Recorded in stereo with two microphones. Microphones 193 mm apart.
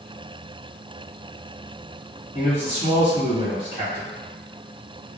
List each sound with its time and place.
2.3 s a man speaking: 35° left (ahead or behind), 1.3 m